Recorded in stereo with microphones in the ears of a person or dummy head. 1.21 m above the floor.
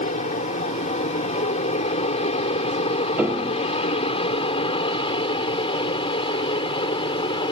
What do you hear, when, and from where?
0.0 s an aircraft: 35° left (ahead or behind); by 7.5 s 25° left (ahead or behind)
3.2 s a piano: 10° right (ahead or behind)